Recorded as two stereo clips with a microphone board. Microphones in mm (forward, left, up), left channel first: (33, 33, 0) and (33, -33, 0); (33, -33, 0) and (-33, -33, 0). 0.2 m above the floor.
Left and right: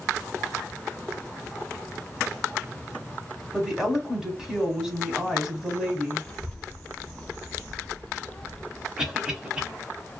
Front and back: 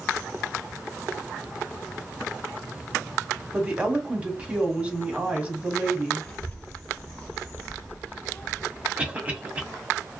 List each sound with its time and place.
3.5 s a woman speaking: 155° right, 1.1 m
6.2 s a child speaking: 35° left, 0.6 m
9.0 s a cough: 150° right, 1.0 m